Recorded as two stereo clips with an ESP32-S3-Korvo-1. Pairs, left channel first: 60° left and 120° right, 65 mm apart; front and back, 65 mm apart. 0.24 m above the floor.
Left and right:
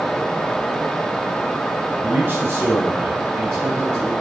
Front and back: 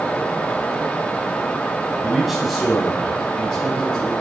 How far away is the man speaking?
About 1.0 m.